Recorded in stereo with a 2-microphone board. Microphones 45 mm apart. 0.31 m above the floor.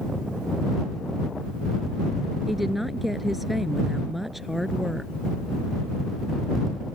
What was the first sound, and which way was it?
A woman speaking, 5° right (ahead or behind).